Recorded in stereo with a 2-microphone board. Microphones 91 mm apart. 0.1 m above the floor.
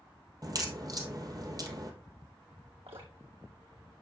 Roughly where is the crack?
Right.